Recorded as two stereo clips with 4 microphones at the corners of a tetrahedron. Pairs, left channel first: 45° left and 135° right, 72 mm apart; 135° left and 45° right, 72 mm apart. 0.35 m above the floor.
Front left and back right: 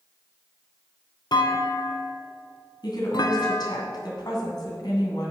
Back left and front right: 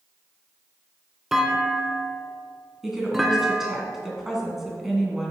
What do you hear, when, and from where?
1.3 s a clunk: 40° left, 0.9 m
2.8 s a woman speaking: 40° left, 2.5 m